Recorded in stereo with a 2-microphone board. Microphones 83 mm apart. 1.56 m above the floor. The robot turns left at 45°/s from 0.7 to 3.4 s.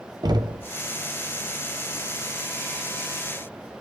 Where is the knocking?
55° right (ahead or behind), 0.7 m.